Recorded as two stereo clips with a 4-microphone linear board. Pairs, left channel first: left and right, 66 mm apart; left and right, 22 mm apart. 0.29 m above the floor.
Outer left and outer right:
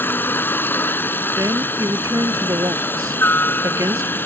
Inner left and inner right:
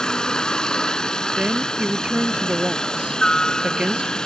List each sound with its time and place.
0.0 s a helicopter: 30° left (ahead or behind)
1.4 s a woman speaking: 60° right (ahead or behind)